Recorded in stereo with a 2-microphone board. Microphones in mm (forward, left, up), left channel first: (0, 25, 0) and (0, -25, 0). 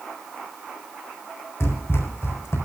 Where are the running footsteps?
70° left (ahead or behind), 4 m.